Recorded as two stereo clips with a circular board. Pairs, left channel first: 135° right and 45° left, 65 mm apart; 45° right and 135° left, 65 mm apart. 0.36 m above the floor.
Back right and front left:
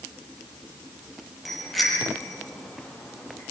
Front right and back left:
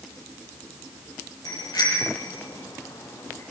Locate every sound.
1.4 s a bicycle bell: 45° right, 7 m; by 3.4 s 55° right, 8.5 m